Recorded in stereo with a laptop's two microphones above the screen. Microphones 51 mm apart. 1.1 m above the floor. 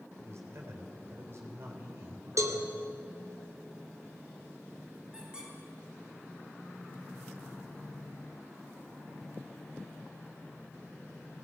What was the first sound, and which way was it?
A man speaking, 55° right (ahead or behind).